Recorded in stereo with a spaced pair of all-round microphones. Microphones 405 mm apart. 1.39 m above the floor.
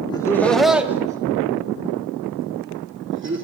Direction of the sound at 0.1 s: 10° left (ahead or behind).